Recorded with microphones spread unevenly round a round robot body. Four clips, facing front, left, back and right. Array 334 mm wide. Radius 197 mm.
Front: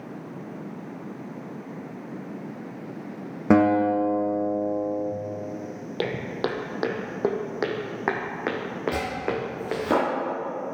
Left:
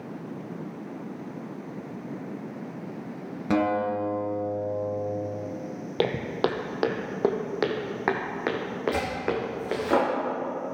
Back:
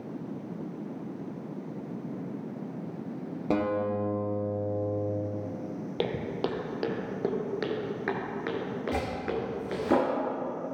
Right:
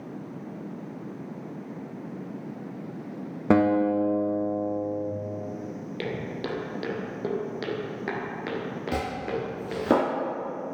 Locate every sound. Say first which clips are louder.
3.5 s a guitar: right 4 dB, front 9 dB; 15° right, 1.8 m
6.0 s footsteps: left 8 dB, front 3 dB; 70° left, 1.2 m; by 9.8 s 40° left, 3 m
8.9 s chopping: right 1 dB, front 2 dB; 105° right, 3 m